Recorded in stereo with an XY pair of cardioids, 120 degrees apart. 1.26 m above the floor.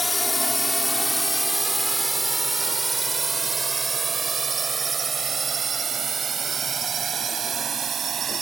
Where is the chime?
I don't hear a chime.